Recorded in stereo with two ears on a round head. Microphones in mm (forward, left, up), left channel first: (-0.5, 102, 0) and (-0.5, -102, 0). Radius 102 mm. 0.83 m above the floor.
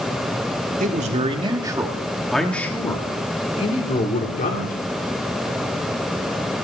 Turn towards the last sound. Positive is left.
turn(degrees=40)  # may be behind; listen again after turning